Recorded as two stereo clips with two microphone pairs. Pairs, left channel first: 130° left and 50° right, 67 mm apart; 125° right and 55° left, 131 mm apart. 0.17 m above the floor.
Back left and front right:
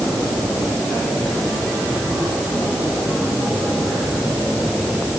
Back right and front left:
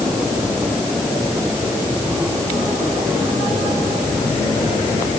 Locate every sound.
Only background noise.